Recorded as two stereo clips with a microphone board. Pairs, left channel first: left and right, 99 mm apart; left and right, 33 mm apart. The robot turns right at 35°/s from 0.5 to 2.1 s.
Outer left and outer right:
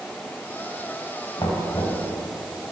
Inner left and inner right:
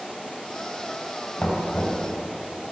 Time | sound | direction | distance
1.4 | knocking | 55° left (ahead or behind) | 3.5 m